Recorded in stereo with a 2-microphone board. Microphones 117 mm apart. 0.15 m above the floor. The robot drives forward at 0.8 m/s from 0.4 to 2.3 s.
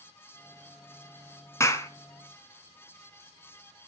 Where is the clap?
25° left (ahead or behind), 1.4 m.